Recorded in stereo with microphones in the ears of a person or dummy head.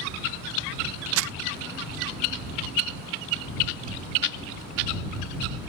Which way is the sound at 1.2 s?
65° right (ahead or behind).